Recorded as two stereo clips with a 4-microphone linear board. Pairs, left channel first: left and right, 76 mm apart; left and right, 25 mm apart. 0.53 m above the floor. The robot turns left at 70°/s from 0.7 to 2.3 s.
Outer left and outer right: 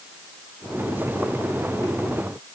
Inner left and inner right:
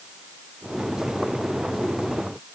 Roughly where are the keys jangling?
No keys jangling in this recording.